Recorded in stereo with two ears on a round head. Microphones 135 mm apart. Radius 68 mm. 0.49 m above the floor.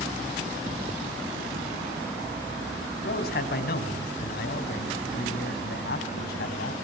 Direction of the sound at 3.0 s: 70° left (ahead or behind).